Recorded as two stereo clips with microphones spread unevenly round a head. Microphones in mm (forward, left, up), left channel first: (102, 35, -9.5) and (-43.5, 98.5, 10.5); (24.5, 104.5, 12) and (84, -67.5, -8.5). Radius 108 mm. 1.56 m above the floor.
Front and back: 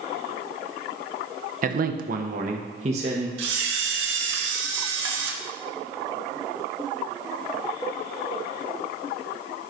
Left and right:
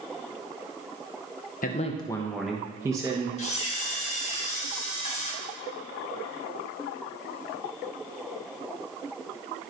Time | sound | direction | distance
1.6 | a man speaking | 150° left | 0.8 m
3.4 | a camera shutter | 170° left | 1.1 m